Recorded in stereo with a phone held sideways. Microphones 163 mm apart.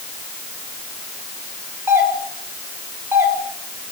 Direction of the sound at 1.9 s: 15° right (ahead or behind).